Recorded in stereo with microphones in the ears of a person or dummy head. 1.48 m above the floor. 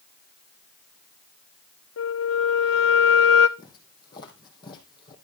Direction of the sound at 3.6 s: 20° left (ahead or behind).